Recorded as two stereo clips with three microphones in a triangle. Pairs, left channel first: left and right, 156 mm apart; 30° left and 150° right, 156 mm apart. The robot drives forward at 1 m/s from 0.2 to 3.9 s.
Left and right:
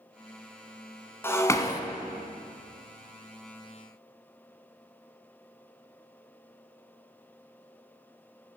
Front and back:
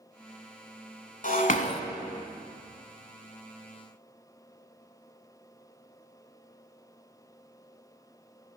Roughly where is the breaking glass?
Ahead.